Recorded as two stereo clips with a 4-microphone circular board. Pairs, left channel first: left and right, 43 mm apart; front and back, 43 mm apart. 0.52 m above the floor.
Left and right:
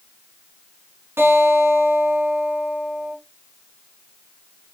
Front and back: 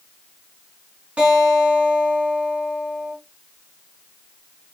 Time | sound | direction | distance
1.2 | a guitar | 115° right | 5.5 m